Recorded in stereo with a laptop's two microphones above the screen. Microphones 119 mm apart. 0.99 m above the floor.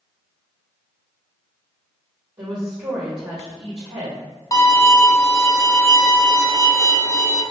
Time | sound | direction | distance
2.4 | a woman speaking | 50° right (ahead or behind) | 1.3 m
4.5 | a violin | 30° left (ahead or behind) | 0.6 m